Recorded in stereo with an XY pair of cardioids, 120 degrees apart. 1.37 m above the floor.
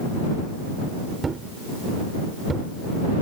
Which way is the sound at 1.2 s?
30° right.